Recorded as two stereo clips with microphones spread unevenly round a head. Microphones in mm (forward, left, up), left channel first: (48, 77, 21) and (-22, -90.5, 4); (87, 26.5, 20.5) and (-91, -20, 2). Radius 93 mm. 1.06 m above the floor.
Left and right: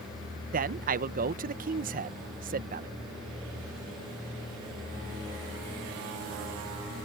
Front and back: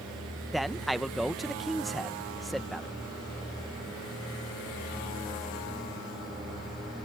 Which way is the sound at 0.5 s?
80° right.